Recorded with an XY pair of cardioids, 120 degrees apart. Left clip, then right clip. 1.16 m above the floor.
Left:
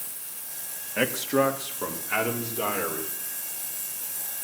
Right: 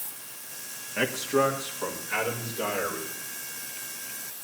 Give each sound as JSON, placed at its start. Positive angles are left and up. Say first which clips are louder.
{"t": 1.0, "sound": "a man speaking", "louder": "left 1 dB", "azimuth_deg": 30, "distance_m": 2.0}